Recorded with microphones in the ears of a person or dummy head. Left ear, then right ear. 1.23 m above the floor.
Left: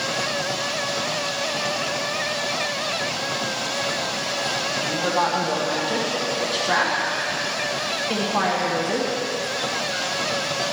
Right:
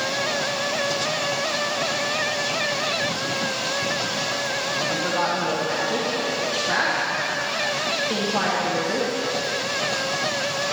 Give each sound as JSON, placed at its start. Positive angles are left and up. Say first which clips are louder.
{"t": 4.7, "sound": "a woman speaking", "louder": "left 1 dB", "side_deg": 15, "distance_m": 1.2}